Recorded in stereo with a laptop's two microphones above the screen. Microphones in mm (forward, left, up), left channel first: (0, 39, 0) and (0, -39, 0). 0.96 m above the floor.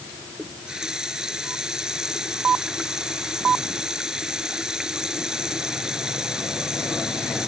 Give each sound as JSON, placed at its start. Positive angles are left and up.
{"t": 0.4, "sound": "a running tap", "side_deg": -10}